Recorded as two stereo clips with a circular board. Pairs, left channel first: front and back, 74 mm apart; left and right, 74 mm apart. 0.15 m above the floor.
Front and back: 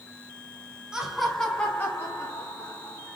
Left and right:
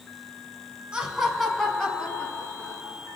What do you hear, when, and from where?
0.9 s laughter: 130° right, 1.0 m; by 3.2 s 35° left, 1.9 m